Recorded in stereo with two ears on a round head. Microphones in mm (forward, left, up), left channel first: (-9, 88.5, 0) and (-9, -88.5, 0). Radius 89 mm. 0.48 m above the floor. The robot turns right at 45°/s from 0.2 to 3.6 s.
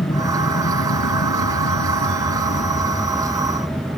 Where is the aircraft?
25° left (ahead or behind); by 4.0 s 10° right (ahead or behind).